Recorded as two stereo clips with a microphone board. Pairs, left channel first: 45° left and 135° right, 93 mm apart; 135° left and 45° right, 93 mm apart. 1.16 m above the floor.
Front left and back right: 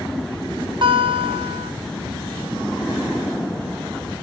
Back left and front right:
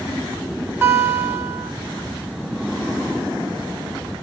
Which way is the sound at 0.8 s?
110° right.